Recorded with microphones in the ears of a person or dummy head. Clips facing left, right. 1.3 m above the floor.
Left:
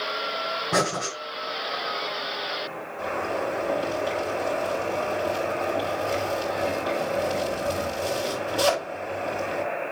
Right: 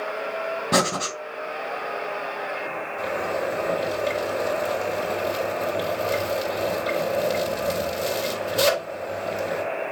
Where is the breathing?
50° right (ahead or behind), 2.5 m.